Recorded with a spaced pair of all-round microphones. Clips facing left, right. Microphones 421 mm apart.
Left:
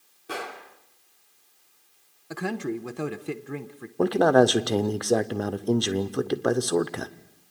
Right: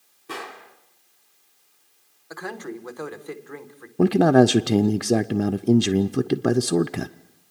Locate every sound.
0.3 s a gunshot: 10° right (ahead or behind), 3 m
2.3 s a man speaking: 50° left (ahead or behind), 1.1 m
4.0 s a man speaking: 45° right (ahead or behind), 0.6 m